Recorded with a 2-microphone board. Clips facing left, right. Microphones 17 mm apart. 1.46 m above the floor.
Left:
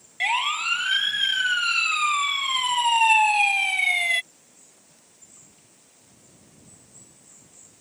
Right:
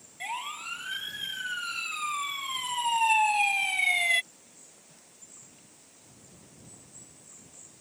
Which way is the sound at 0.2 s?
70° left (ahead or behind).